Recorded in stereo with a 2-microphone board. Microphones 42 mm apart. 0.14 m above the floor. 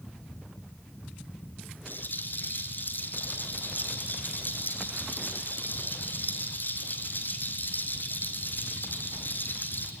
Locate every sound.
1.9 s a rattle: 50° left (ahead or behind), 2 m